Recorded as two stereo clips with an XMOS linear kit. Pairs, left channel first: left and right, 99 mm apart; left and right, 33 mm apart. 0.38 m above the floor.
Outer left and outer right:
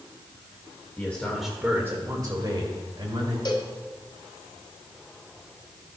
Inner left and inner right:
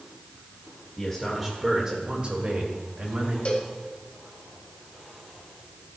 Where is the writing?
No writing in this recording.